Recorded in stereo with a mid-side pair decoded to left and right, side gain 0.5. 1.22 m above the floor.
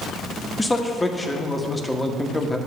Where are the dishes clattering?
I don't hear dishes clattering.